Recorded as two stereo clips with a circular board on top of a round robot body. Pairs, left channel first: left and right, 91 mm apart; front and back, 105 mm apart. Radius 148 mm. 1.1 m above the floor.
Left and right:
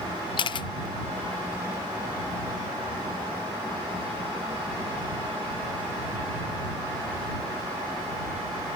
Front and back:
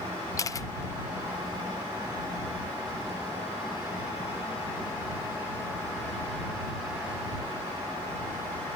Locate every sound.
0.4 s a camera shutter: 60° left